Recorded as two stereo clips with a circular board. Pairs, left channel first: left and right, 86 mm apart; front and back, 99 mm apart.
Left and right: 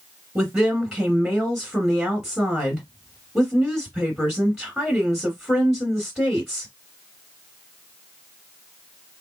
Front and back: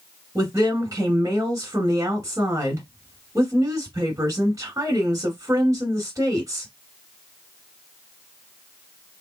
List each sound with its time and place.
0.3 s a woman speaking: 170° right, 1.7 m